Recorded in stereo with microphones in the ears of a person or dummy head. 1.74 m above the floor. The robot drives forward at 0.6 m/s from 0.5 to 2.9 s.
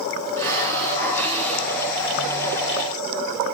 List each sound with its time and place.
0.4 s a hiss: 15° left (ahead or behind), 1.5 m; by 2.0 s 10° left (ahead or behind), 2.5 m